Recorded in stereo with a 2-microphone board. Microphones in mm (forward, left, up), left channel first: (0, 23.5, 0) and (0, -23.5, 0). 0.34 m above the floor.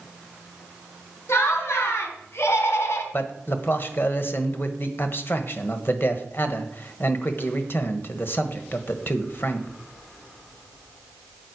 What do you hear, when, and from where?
1.3 s laughter: 60° left (ahead or behind), 3.5 m; by 3.0 s 65° left (ahead or behind), 2 m
3.1 s a man speaking: 45° left (ahead or behind), 1.4 m